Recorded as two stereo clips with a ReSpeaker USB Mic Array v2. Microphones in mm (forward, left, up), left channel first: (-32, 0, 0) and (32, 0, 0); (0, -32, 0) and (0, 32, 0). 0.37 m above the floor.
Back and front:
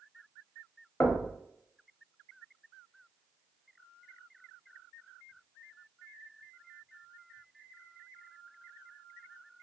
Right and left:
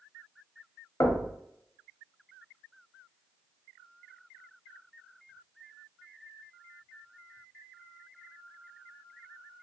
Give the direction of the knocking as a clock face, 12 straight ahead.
4 o'clock.